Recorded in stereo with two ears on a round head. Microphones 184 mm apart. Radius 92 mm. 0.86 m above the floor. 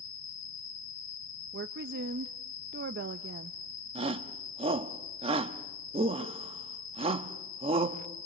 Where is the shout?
30° right (ahead or behind), 1.1 m.